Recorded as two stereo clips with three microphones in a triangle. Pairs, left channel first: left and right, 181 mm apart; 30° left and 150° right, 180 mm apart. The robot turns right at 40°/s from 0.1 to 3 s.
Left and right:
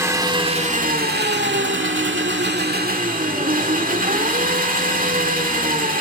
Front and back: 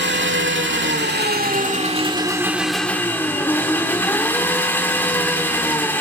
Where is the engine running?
165° right, 1.9 m; by 6.0 s 50° right, 1.9 m.